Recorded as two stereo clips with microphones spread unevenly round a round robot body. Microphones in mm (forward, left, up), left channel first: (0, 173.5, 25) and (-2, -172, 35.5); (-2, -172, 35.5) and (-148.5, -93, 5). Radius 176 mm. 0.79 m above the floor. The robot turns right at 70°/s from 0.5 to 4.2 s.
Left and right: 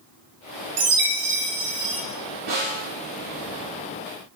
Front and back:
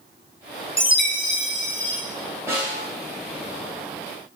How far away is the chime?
About 0.8 m.